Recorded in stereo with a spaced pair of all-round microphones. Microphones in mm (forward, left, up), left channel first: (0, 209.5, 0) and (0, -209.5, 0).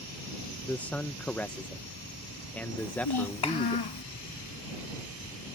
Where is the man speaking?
5° left (ahead or behind).